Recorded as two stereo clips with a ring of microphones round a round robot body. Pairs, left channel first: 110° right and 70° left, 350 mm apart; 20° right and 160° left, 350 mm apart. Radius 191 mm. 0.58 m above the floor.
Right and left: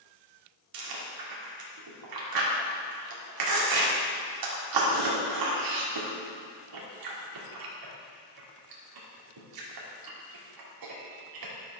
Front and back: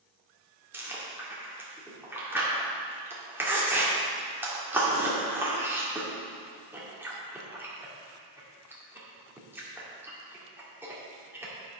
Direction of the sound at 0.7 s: 75° left.